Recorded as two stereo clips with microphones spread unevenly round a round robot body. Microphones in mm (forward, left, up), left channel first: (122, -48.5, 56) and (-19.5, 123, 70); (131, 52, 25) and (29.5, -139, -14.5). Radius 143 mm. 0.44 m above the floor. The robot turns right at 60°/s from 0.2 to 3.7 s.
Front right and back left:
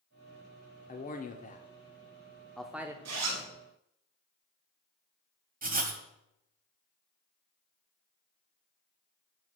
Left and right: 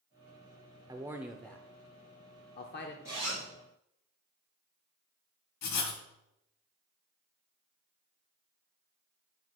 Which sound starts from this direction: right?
A man speaking, at 0.9 s.